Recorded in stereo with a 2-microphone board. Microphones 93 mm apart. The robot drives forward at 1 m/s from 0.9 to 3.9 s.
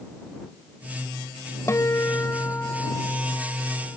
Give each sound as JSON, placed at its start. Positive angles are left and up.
{"t": 1.7, "sound": "a guitar", "side_deg": 35}